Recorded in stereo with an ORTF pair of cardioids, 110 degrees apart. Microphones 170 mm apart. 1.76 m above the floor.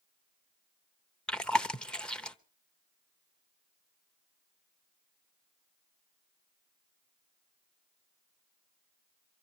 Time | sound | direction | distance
1.3 | chewing | 5° left | 0.8 m